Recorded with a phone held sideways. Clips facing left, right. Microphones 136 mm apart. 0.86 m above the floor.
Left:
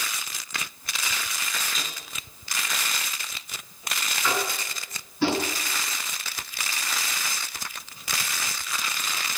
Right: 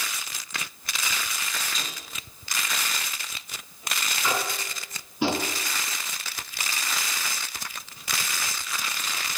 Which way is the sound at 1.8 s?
Centre (ahead or behind).